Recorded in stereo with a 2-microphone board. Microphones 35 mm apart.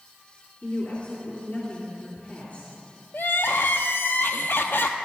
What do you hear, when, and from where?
0.6 s a woman speaking: 50° left (ahead or behind), 2.5 m
3.1 s crying: 70° left (ahead or behind), 0.6 m